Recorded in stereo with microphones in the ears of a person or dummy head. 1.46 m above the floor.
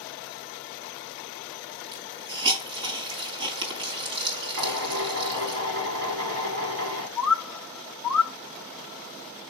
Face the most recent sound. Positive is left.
turn(degrees=5)  # may be behind; listen again after turning